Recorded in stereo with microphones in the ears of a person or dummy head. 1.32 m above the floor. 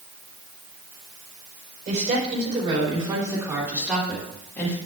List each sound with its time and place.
1.9 s a woman speaking: 45° right (ahead or behind), 4 m; by 4.8 s 15° left (ahead or behind), 3 m